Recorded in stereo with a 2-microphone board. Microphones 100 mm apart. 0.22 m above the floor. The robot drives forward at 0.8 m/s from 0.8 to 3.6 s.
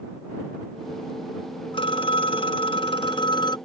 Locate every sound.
1.7 s a phone ringing: 55° left (ahead or behind); by 3.6 s 45° left (ahead or behind)